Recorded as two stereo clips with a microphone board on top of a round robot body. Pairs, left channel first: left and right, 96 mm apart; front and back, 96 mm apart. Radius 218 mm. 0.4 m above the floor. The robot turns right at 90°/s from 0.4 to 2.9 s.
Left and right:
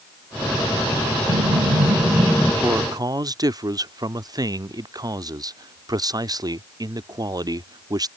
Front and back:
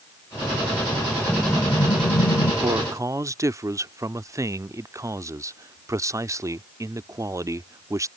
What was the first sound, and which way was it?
An explosion, 105° right.